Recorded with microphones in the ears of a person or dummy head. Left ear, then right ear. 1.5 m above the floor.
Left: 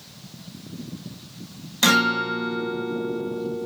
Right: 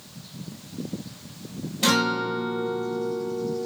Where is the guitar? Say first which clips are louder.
Left 4 dB; 50° left (ahead or behind), 1.2 m.